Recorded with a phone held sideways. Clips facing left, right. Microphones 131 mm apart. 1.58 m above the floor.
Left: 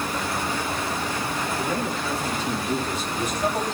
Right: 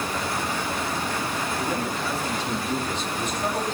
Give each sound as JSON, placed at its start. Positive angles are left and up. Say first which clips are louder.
{"t": 1.6, "sound": "a man speaking", "louder": "left 1 dB", "side_deg": -5, "distance_m": 4.5}